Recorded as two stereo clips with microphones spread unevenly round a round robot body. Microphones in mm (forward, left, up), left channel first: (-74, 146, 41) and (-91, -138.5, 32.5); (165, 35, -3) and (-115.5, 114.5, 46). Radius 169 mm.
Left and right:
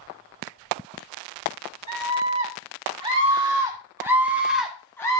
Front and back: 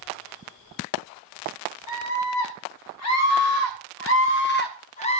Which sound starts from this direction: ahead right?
A scream, at 1.9 s.